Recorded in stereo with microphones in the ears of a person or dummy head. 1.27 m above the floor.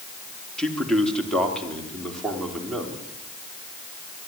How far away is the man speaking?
About 2.5 m.